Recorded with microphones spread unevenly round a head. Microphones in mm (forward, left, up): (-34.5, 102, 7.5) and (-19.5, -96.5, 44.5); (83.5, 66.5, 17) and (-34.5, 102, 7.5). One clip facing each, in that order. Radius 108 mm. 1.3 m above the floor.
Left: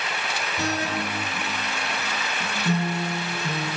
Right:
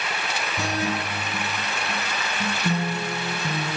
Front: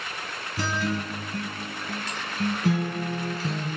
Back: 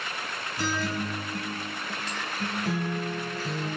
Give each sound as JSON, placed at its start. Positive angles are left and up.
{"t": 0.6, "sound": "a guitar", "azimuth_deg": -10, "distance_m": 5.5}